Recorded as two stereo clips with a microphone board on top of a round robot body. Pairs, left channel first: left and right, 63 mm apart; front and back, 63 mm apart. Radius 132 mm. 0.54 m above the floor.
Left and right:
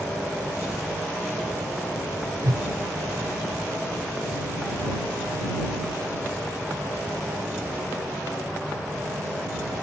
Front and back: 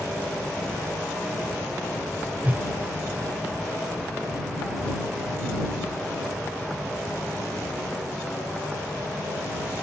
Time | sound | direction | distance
2.4 | a whoosh | 115° right | ?